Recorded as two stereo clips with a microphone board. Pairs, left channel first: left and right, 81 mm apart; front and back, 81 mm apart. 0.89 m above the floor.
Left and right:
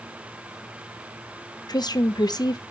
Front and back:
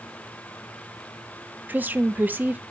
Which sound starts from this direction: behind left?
A woman speaking, at 1.7 s.